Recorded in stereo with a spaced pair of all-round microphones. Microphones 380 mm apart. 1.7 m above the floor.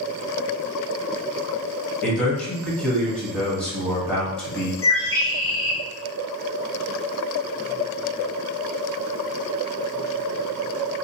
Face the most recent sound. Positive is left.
turn(degrees=35)  # may be behind; listen again after turning